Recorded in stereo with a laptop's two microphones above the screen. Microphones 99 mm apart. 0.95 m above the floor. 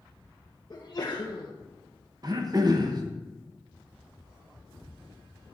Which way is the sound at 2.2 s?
40° right (ahead or behind).